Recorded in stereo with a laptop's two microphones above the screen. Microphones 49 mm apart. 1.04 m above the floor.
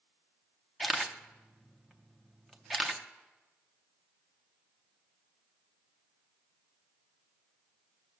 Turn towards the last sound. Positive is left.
turn(degrees=0)  # may be behind; listen again after turning